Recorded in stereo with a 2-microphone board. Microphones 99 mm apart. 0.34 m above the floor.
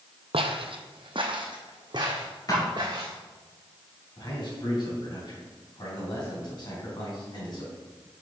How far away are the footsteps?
About 0.8 m.